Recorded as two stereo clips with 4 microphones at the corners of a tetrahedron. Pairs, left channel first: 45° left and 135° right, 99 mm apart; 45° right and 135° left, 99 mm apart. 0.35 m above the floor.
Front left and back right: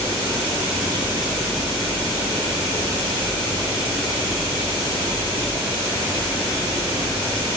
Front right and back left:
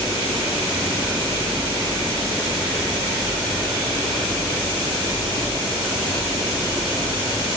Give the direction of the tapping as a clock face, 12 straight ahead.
No tapping in this recording.